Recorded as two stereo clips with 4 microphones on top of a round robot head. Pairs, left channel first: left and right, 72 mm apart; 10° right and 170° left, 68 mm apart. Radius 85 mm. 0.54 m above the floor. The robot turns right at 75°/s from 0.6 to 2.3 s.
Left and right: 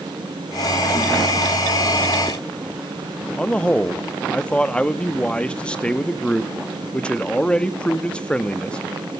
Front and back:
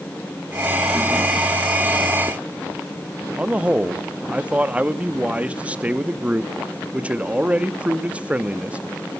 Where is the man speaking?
140° left, 0.9 m.